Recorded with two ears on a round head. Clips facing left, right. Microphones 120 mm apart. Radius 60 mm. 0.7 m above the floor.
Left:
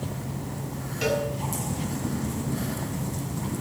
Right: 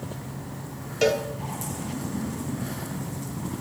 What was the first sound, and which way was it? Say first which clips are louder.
A cowbell: right 3 dB; 60° right (ahead or behind).